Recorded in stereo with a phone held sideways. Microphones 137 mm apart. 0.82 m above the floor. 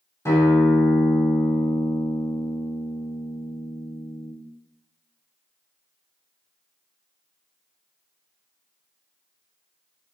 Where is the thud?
I don't hear a thud.